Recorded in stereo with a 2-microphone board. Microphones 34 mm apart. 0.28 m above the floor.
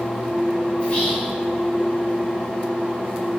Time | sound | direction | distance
0.8 | whispering | 25° left (ahead or behind) | 1.0 m